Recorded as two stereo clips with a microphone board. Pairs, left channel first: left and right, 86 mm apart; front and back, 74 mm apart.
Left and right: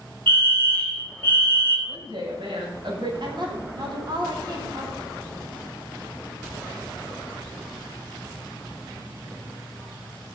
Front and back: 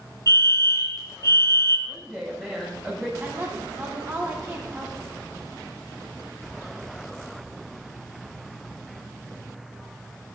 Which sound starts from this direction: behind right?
A woman speaking, at 3.2 s.